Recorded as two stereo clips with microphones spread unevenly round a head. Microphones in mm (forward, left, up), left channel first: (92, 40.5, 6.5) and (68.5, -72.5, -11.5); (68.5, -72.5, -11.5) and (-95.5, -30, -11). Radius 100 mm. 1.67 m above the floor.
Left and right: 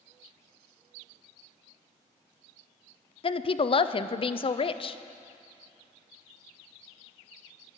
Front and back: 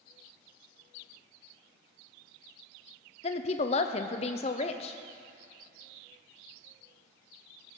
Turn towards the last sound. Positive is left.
turn(degrees=45)